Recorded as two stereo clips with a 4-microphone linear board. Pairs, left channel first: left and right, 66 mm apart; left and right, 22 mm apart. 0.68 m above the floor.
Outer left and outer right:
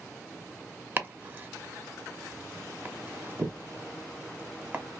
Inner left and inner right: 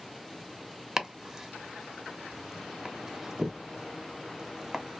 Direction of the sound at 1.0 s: 30° right (ahead or behind).